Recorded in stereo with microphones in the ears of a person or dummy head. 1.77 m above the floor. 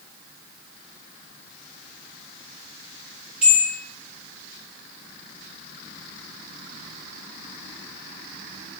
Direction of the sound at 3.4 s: 5° right (ahead or behind).